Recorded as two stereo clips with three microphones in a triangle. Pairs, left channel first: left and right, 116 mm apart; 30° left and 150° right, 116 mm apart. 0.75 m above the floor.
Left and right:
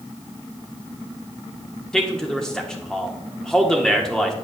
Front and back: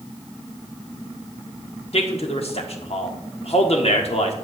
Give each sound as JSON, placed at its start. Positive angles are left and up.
{"t": 1.9, "sound": "a man speaking", "azimuth_deg": 5, "distance_m": 1.4}